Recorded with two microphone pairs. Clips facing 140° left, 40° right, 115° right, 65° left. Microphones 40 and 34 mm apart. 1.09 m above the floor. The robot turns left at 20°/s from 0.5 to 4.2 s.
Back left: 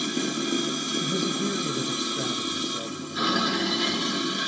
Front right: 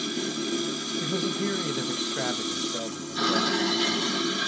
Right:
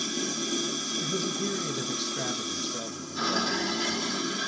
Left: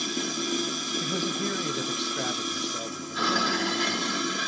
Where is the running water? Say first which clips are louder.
Back left 2 dB, left 2 dB; 120° left, 1.3 m; by 4.5 s 50° left, 1.3 m.